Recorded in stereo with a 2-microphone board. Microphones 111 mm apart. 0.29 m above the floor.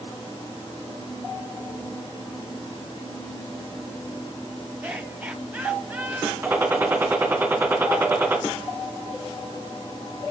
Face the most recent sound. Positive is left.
turn(degrees=-15)  # may be behind; listen again after turning